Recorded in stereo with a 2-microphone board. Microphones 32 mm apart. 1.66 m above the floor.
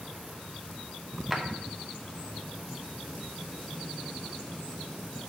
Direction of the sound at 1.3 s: 5° right (ahead or behind).